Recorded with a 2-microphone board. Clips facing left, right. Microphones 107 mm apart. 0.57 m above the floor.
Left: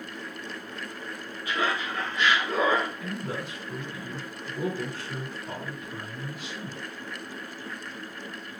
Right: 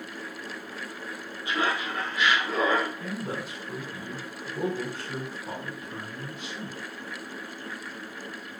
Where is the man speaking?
35° right (ahead or behind), 2 m.